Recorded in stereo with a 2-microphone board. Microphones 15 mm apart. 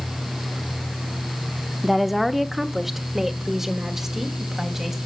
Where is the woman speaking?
5° right (ahead or behind), 1.0 m; by 5.0 s 30° right (ahead or behind), 3.5 m.